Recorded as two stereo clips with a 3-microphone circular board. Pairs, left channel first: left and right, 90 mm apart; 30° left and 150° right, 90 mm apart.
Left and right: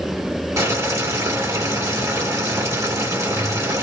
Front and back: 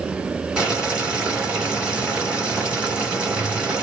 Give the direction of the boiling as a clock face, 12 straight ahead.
3 o'clock.